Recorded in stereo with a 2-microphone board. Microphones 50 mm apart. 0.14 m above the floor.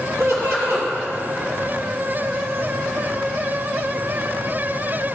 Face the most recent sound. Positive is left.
turn(degrees=-65)  # may be behind; listen again after turning